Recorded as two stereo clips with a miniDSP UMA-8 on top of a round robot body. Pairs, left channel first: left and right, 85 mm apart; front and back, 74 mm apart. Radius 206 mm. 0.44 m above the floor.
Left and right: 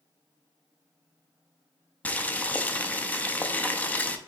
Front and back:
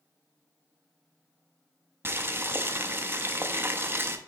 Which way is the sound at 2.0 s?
150° left.